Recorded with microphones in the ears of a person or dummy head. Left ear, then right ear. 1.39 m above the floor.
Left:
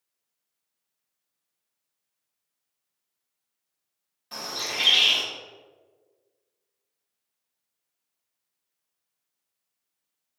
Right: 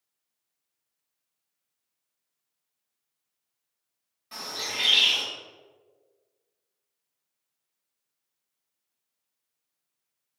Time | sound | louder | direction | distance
4.3 | a bird | left 2 dB | 10° left (ahead or behind) | 1.6 m